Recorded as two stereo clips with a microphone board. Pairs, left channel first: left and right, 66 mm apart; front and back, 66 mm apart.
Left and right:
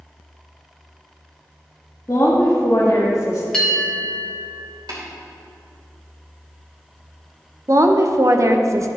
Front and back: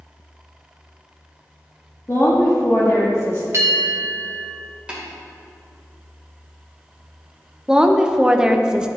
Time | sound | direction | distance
2.1 | a woman speaking | 45° left | 1.2 m
3.5 | a bell | 170° left | 1.8 m
4.9 | tapping | 105° right | 2.5 m
7.7 | a woman speaking | 105° right | 0.6 m